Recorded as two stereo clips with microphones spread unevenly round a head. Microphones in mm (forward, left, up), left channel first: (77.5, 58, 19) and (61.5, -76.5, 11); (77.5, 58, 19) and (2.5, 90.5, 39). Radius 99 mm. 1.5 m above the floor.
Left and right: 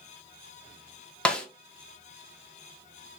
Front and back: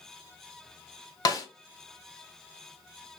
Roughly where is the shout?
No shout in this recording.